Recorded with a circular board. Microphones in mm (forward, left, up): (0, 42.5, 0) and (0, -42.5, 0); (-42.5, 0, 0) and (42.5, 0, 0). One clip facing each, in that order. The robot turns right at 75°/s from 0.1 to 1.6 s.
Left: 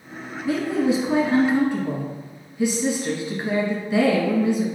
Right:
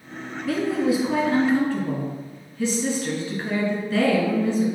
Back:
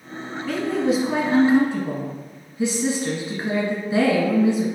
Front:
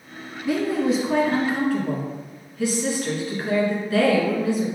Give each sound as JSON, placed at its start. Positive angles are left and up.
{"t": 0.5, "sound": "a woman speaking", "azimuth_deg": 55, "distance_m": 1.2}